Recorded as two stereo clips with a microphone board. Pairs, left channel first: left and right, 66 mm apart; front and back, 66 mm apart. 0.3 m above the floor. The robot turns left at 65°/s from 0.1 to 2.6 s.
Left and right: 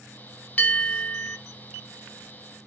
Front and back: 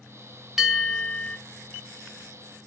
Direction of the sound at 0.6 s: 95° left.